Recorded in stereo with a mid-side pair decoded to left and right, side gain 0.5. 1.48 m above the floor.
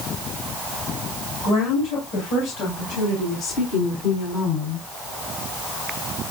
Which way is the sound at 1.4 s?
70° left.